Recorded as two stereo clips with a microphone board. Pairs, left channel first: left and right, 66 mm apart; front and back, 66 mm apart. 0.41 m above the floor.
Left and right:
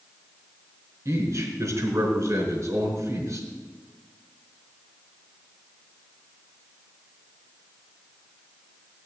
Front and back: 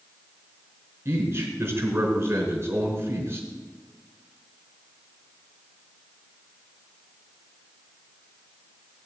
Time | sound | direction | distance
1.1 | a man speaking | 130° right | 4 m